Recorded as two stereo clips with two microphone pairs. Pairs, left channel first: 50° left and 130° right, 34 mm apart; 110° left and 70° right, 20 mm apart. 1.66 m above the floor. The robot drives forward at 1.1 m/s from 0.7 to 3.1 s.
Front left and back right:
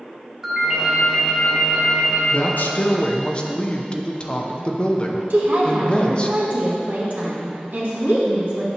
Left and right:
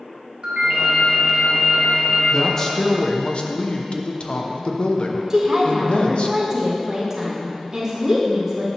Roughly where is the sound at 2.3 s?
Ahead left.